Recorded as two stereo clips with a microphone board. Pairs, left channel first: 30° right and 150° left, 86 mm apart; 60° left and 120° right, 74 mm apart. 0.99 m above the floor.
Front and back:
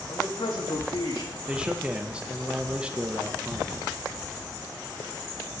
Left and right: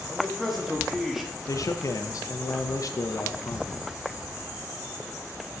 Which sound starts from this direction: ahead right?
A man speaking, at 0.1 s.